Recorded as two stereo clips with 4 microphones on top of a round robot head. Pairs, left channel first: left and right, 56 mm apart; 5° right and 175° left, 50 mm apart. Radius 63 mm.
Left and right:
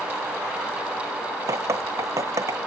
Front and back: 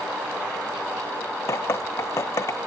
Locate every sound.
1.5 s dripping: 50° right